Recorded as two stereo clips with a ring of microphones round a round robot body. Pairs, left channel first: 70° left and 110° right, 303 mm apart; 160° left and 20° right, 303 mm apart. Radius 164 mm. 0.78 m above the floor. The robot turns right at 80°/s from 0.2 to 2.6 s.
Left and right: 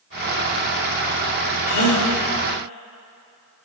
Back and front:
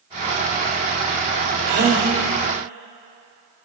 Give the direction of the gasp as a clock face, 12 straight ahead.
11 o'clock.